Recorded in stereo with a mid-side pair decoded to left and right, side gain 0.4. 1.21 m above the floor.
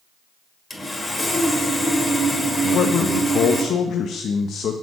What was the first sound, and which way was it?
Sawing, 20° left.